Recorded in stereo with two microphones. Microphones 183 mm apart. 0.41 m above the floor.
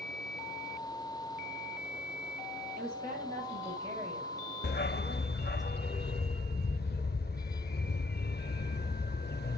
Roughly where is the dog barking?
Left.